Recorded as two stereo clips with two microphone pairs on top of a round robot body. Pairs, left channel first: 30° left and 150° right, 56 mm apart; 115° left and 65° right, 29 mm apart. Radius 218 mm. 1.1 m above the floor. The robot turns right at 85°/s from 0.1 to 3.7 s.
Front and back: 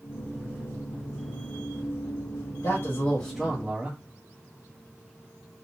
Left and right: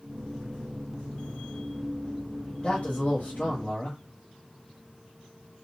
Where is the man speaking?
55° left, 1.8 m; by 4.0 s 145° left, 1.8 m.